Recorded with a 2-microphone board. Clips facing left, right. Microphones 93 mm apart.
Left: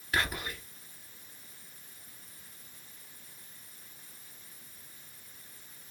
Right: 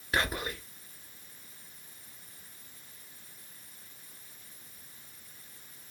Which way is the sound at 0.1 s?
25° right (ahead or behind).